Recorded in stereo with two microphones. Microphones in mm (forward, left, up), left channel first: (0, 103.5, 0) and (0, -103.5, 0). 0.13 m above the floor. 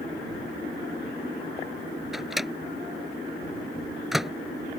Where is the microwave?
Centre (ahead or behind).